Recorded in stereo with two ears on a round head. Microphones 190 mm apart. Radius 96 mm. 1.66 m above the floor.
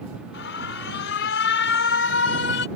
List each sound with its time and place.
0.3 s an alarm: 60° left (ahead or behind)